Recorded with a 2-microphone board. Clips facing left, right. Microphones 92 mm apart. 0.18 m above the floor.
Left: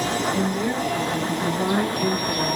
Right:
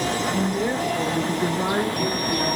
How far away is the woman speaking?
About 3.5 m.